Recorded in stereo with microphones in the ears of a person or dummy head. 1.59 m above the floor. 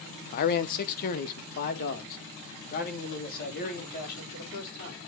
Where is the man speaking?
55° left (ahead or behind), 0.8 m.